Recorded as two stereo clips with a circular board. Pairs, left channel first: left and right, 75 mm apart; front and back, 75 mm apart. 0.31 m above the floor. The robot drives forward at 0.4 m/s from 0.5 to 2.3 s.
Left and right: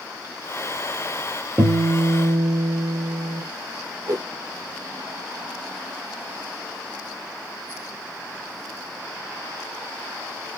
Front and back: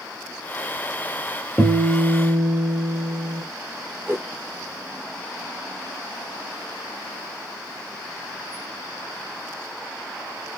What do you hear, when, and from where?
1.6 s a guitar: 70° right, 1.0 m; by 3.4 s 115° right, 1.0 m
4.1 s a whoosh: 120° right, 0.8 m